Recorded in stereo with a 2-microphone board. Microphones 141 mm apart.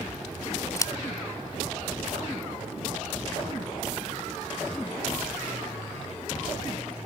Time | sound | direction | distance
0.8 | scissors | 20° left (ahead or behind) | ?